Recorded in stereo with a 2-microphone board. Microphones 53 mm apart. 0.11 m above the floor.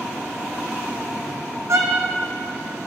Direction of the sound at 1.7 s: 65° right (ahead or behind).